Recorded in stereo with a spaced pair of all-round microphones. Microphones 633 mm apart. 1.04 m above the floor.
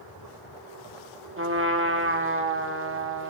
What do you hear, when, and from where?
1.4 s a trumpet: 20° right (ahead or behind), 0.7 m